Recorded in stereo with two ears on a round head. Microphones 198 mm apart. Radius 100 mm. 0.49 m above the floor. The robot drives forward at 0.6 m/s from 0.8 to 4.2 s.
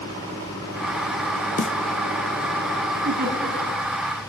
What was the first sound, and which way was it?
A snare drum, 35° left (ahead or behind).